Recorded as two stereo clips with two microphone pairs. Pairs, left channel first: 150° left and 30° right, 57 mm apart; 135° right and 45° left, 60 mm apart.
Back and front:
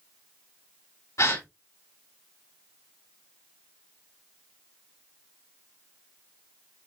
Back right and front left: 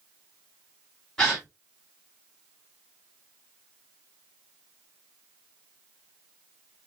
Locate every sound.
1.2 s a gasp: 145° left, 3 m